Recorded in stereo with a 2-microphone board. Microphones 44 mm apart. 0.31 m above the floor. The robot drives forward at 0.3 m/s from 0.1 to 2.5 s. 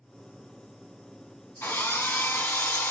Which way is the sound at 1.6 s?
60° left (ahead or behind).